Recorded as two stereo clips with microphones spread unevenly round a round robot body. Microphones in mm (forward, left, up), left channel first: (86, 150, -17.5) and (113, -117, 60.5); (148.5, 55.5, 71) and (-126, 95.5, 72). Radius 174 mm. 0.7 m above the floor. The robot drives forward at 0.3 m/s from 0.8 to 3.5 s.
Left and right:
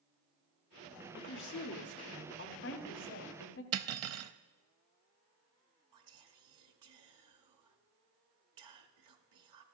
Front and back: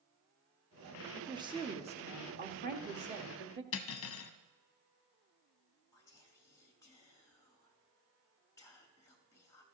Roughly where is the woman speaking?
Left.